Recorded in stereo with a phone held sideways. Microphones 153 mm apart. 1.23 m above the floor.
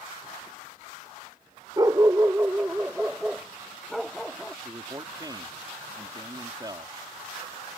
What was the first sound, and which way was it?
A dog barking, 25° right (ahead or behind).